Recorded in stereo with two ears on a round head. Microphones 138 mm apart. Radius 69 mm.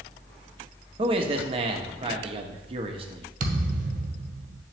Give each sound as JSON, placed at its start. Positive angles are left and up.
{"t": 1.0, "sound": "a man speaking", "side_deg": -35, "distance_m": 0.9}
{"t": 3.4, "sound": "a thud", "side_deg": -55, "distance_m": 1.5}